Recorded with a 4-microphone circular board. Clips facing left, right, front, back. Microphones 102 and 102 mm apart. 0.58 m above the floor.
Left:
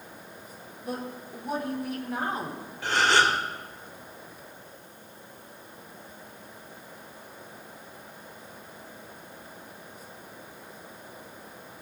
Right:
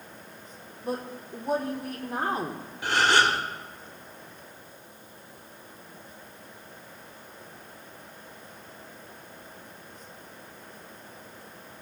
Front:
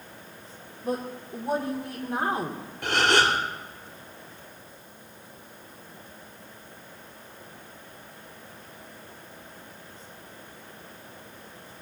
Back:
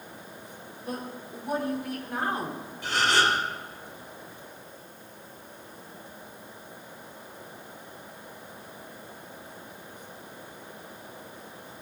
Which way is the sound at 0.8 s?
50° right.